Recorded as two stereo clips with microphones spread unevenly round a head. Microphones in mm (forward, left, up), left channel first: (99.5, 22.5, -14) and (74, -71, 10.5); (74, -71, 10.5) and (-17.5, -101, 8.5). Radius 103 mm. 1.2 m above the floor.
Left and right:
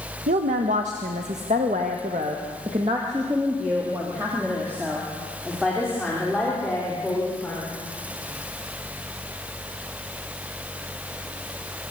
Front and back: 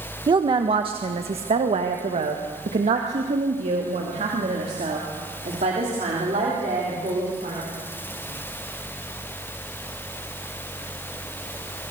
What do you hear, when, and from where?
0.3 s a woman speaking: 120° right, 1.4 m; by 7.6 s 160° left, 4.5 m